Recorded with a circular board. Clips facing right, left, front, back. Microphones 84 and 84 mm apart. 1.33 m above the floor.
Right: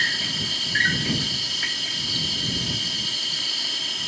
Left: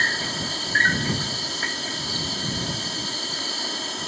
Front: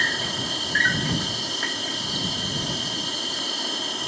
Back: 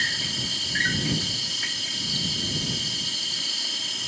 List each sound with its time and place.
0.0 s an insect: 35° left